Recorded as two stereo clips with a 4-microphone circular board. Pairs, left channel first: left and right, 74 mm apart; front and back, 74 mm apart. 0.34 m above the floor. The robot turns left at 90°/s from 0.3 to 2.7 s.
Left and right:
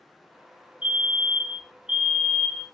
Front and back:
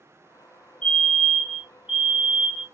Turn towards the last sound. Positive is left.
turn(degrees=145)